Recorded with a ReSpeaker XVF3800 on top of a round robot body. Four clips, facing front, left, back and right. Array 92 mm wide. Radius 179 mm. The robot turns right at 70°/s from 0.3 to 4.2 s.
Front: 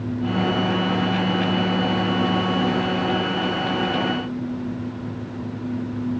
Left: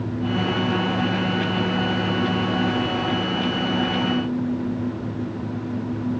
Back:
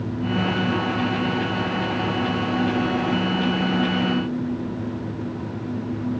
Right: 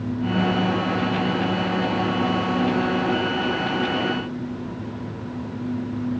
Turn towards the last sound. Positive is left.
No sound to turn to.